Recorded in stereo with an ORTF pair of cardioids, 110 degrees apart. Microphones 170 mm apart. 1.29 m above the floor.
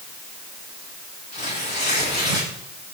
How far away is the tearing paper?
About 8.5 m.